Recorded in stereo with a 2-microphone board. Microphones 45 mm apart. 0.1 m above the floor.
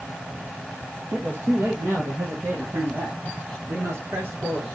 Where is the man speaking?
55° right (ahead or behind), 2 m.